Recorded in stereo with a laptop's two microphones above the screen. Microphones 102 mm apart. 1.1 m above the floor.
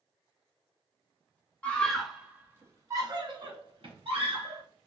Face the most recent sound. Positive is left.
turn(degrees=-65)  # may be behind; listen again after turning